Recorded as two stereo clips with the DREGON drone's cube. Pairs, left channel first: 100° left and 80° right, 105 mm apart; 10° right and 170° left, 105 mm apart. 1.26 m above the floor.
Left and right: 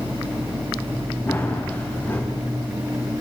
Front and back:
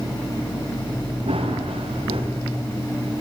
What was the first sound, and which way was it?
Running footsteps, 170° left.